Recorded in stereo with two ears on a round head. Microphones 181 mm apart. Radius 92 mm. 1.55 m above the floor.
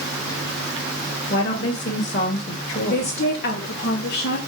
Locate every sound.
1.3 s a woman speaking: 50° left (ahead or behind), 2 m
2.9 s a woman speaking: 55° left (ahead or behind), 3 m